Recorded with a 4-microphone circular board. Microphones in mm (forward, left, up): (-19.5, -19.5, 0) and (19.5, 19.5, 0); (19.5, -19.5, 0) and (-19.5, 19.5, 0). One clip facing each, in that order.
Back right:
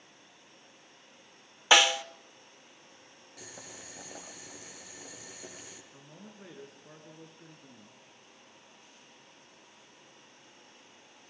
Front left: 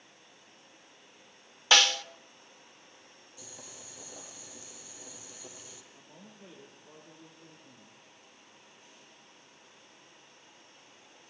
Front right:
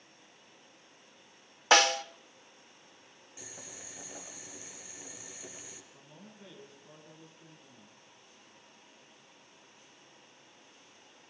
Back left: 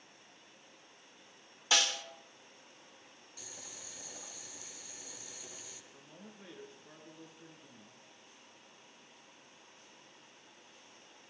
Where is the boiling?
115° right, 6 m.